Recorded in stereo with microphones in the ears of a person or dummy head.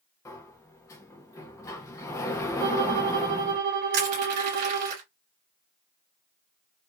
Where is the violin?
55° right (ahead or behind), 2.5 m.